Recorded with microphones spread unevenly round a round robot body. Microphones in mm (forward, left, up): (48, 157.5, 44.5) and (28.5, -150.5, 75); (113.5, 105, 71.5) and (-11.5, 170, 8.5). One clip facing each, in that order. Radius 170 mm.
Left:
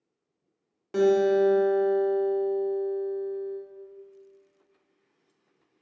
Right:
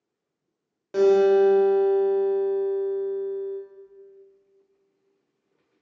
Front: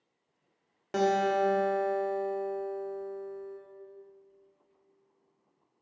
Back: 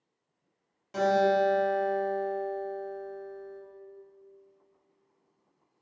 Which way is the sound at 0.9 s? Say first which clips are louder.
Right 4 dB, back 2 dB; 10° left.